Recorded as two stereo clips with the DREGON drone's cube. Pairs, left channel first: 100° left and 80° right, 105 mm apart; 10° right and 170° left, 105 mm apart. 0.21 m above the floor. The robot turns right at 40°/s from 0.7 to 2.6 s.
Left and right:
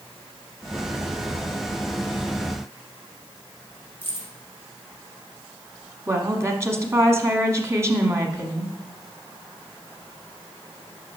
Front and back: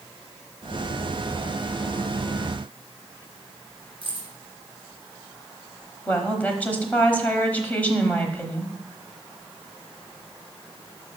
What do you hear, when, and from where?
4.0 s keys jangling: 30° left, 2.5 m
6.1 s a woman speaking: 70° right, 1.1 m